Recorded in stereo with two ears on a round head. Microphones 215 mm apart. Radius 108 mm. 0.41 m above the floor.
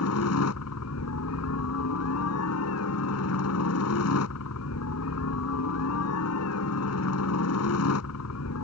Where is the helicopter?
60° left (ahead or behind).